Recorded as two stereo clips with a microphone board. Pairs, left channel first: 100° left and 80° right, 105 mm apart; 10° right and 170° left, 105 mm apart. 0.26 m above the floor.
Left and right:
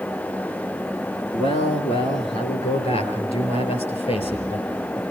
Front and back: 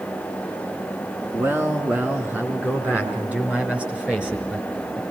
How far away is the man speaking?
About 4 m.